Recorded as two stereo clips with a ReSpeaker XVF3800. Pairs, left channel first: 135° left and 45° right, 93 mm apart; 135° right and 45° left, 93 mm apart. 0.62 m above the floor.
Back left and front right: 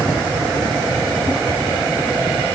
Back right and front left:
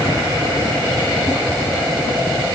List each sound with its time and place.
Only background noise.